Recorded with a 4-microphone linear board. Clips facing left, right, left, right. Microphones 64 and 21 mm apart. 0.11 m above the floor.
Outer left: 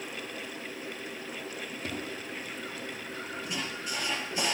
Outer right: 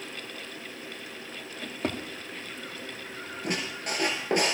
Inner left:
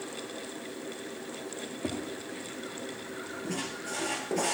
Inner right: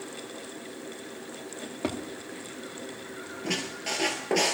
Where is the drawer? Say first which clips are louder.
Outer right 7 dB, inner right 3 dB; 75° right (ahead or behind), 3.5 m.